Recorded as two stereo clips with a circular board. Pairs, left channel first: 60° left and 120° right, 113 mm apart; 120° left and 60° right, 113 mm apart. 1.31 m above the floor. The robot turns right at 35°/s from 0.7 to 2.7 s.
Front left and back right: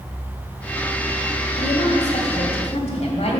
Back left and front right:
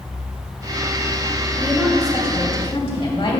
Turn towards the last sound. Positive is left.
turn(degrees=80)